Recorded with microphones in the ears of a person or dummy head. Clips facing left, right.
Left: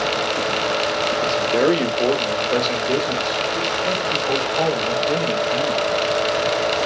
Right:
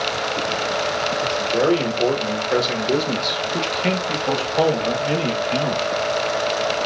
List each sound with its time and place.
1.2 s a man speaking: 35° left (ahead or behind), 1.1 m; by 5.9 s 55° right (ahead or behind), 2 m